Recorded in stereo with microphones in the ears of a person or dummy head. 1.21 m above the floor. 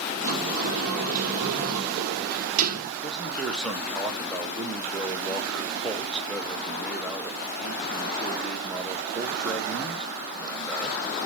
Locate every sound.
0.2 s a sliding door: 55° right (ahead or behind), 1.4 m
3.0 s a man speaking: centre (ahead or behind), 1.0 m